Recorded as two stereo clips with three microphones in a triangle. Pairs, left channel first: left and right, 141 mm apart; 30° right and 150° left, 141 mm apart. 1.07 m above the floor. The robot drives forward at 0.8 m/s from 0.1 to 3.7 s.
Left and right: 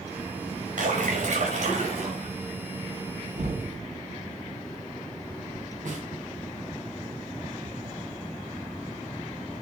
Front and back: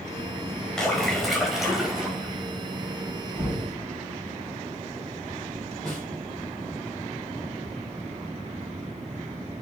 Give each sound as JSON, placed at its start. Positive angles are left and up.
{"t": 0.8, "sound": "a splash", "azimuth_deg": -115, "distance_m": 5.0}
{"t": 3.4, "sound": "knocking", "azimuth_deg": -125, "distance_m": 8.5}
{"t": 5.8, "sound": "a snare drum", "azimuth_deg": -115, "distance_m": 5.5}